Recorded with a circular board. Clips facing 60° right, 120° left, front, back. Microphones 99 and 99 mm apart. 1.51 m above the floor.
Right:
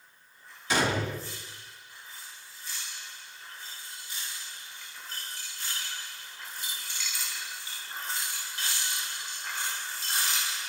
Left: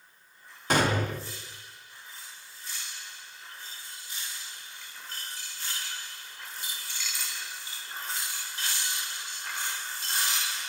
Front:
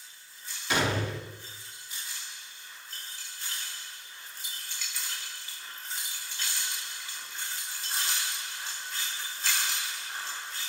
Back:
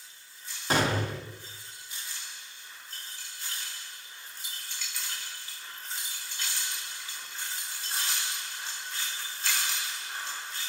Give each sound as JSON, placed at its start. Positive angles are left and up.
{"t": 0.7, "sound": "a gunshot", "azimuth_deg": 140, "distance_m": 0.6}